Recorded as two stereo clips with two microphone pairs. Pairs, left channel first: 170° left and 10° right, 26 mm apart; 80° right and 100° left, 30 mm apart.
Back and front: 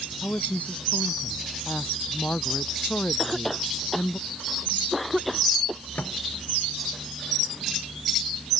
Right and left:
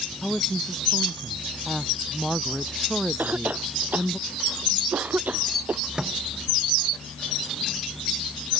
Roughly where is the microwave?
Behind.